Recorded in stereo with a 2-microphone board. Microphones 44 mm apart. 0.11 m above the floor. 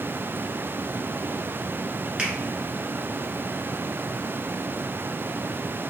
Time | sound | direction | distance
2.2 | a finger snap | 25° right (ahead or behind) | 1.3 m